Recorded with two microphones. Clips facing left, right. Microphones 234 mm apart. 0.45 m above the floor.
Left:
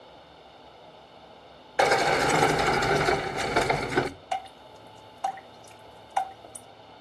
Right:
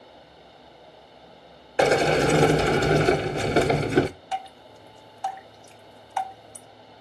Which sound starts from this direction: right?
A sliding door, at 1.8 s.